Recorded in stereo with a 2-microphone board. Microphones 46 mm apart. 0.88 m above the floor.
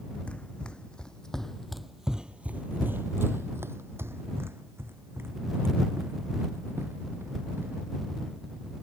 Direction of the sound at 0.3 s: 25° left (ahead or behind).